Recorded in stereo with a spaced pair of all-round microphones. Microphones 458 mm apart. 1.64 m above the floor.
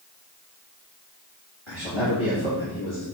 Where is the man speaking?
85° left, 3.5 m.